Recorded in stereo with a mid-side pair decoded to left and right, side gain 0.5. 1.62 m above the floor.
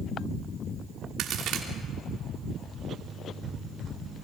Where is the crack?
65° right, 3 m.